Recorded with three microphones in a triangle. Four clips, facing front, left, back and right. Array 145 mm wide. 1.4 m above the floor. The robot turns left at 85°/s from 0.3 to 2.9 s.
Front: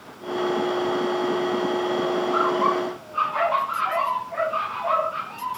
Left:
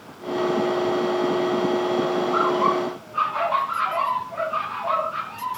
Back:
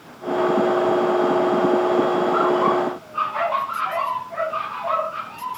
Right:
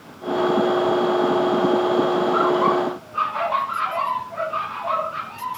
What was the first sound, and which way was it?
Only background noise.